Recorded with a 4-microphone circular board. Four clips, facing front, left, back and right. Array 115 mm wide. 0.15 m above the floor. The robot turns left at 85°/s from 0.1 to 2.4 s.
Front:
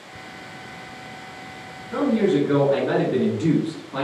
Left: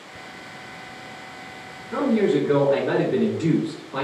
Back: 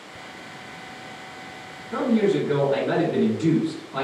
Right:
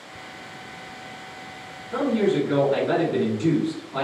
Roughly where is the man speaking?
Left.